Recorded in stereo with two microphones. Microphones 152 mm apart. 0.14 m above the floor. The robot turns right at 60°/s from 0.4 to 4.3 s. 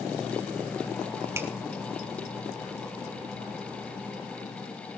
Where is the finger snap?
20° right (ahead or behind), 2.5 m; by 1.5 s 10° right (ahead or behind), 2.5 m.